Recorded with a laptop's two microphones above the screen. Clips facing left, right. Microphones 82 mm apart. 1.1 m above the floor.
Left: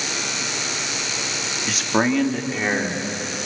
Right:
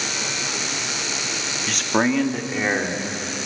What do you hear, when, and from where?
1.7 s a man speaking: 5° left (ahead or behind), 1.8 m; by 3.5 s 10° right (ahead or behind), 4 m